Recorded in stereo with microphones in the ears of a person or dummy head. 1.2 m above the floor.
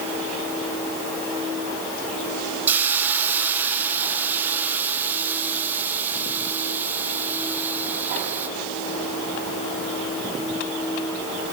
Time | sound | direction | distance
2.7 | a hiss | 5° right (ahead or behind) | 0.8 m